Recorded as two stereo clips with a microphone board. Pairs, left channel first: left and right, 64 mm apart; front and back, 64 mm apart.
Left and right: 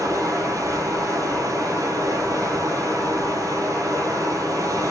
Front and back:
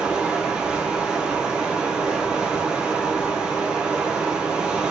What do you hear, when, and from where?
0.0 s running water: 100° right, 1.3 m